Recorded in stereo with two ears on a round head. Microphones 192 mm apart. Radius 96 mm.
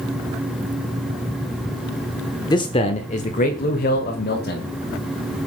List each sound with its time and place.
2.5 s a man speaking: 20° left (ahead or behind), 0.9 m; by 4.7 s 50° left (ahead or behind), 2 m